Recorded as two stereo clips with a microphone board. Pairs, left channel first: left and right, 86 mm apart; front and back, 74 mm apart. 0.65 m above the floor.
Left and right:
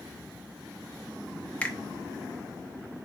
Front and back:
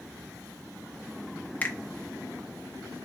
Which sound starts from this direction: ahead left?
A finger snap, at 1.6 s.